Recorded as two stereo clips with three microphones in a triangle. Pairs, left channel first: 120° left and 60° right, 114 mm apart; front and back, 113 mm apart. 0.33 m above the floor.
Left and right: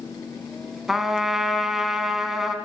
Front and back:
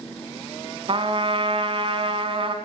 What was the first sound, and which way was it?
A trumpet, 145° right.